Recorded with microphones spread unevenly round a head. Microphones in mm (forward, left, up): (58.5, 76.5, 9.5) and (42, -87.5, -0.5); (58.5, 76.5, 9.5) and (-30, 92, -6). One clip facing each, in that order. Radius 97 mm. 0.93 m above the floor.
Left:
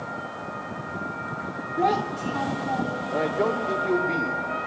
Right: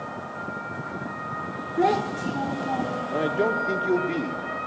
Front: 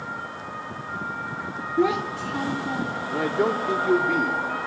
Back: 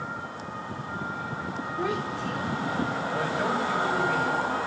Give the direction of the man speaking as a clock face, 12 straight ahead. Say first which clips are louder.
Even, front 7 dB; 1 o'clock.